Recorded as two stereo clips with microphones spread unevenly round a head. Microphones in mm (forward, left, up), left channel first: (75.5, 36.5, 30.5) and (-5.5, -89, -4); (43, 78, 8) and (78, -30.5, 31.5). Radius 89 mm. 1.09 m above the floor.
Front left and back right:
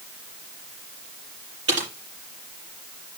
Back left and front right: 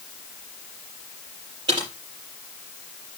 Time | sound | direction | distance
1.7 | typing on a keyboard | 140° right | 5.5 m